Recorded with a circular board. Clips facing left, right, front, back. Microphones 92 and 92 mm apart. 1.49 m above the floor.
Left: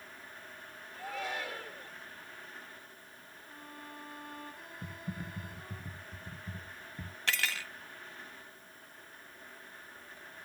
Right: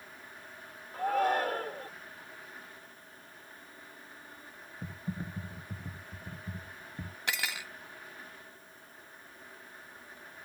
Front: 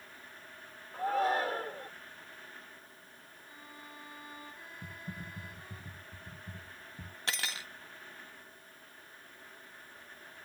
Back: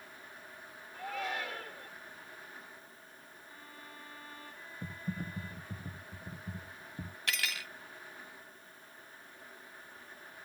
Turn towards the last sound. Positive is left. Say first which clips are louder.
# left 1 dB, even
turn(degrees=-25)